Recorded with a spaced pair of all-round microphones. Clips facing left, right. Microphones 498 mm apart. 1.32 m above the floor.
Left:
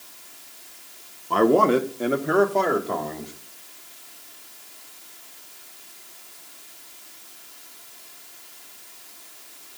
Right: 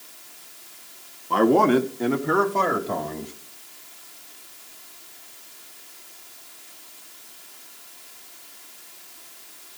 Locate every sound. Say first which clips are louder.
1.3 s a man speaking: even; centre (ahead or behind), 1.2 m; by 3.3 s 30° right (ahead or behind), 2.5 m